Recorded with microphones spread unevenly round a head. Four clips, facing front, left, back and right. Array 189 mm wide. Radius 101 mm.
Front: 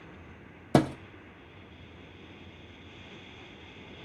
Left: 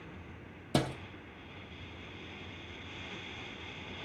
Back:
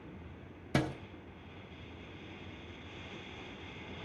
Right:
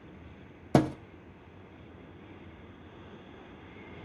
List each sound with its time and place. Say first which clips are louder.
0.7 s a thud: right 7 dB, front 9 dB; 40° right, 1.0 m